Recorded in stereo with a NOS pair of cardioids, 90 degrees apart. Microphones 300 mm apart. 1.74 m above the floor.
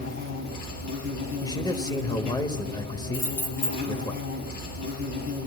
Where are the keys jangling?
70° left, 3 m.